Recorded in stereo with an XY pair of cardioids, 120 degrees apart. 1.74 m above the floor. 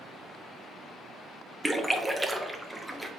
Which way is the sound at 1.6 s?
10° right.